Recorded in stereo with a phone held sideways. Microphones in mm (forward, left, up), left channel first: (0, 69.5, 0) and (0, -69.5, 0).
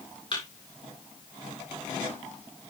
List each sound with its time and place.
0.3 s a thud: 35° left (ahead or behind), 7 m